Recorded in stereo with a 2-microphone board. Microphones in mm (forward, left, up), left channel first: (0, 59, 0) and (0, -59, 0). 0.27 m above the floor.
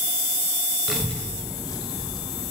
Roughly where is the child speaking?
Centre.